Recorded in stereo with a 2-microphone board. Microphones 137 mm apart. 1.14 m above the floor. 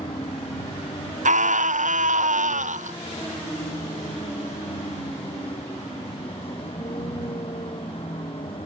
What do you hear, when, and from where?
0.0 s a vehicle: 45° left (ahead or behind)
1.2 s a scream: 80° right